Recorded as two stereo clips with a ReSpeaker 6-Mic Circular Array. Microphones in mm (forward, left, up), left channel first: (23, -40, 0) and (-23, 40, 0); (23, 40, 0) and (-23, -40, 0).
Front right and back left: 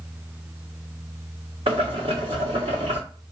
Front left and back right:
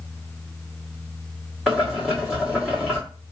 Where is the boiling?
145° left, 1.9 m.